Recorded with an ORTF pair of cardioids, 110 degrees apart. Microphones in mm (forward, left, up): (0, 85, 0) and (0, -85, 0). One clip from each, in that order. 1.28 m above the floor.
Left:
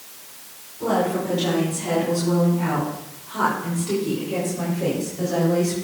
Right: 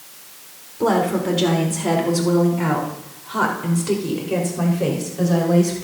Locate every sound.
0.8 s a woman speaking: 65° right, 4 m; by 5.8 s 35° right, 5.5 m